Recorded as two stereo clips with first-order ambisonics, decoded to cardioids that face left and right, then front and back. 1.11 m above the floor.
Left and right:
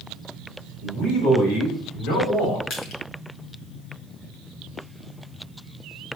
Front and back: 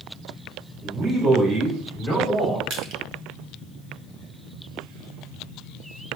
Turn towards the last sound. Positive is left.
turn(degrees=135)